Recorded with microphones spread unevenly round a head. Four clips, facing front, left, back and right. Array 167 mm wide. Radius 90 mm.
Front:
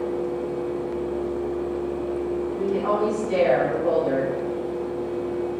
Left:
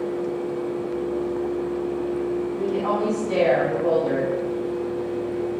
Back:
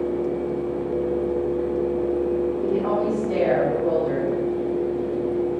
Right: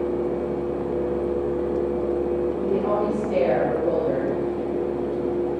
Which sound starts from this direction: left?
A woman speaking, at 2.6 s.